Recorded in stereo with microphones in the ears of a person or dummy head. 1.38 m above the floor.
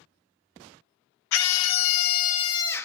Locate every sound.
1.3 s a scream: 75° left (ahead or behind), 0.8 m; by 2.9 s 10° left (ahead or behind), 0.7 m